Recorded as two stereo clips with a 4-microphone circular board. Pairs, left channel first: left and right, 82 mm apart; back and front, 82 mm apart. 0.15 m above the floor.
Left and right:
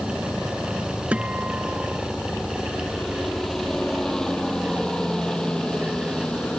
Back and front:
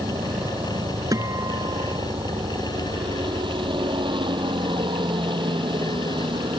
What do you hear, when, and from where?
0.0 s a helicopter: 5° right; by 6.6 s 10° left
1.1 s a guitar: 20° right